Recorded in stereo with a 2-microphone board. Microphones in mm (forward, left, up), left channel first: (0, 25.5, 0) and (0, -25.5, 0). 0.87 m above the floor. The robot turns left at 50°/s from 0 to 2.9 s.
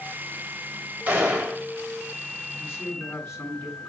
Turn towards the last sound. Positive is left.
turn(degrees=55)  # may be behind; listen again after turning